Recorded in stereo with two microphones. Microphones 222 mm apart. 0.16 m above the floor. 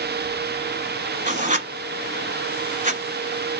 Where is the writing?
35° right (ahead or behind), 0.7 m.